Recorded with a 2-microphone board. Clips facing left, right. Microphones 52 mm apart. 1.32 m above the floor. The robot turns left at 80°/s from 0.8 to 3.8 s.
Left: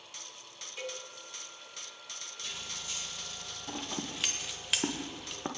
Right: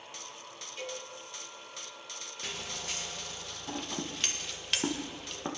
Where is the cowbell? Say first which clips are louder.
Even; 10° left (ahead or behind), 3 m; by 1.0 s 30° left (ahead or behind), 3 m.